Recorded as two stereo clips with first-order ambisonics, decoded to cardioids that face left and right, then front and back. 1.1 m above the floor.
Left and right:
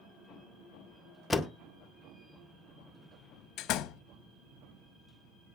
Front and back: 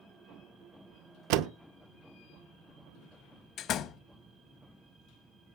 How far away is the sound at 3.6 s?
About 0.7 m.